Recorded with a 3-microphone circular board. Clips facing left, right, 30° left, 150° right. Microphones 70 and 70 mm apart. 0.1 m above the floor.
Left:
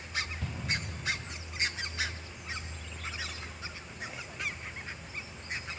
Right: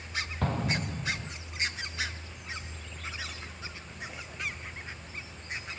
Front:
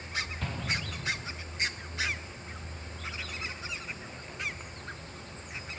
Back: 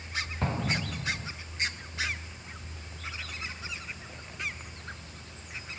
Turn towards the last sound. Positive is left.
turn(degrees=-100)